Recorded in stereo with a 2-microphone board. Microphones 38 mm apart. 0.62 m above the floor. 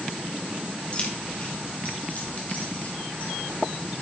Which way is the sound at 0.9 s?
30° left (ahead or behind).